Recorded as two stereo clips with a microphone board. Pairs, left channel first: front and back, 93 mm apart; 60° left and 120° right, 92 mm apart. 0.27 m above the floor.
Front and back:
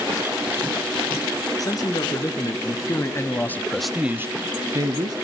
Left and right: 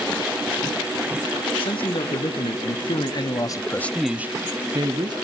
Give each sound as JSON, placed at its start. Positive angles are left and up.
{"t": 1.6, "sound": "a man speaking", "azimuth_deg": 45, "distance_m": 3.5}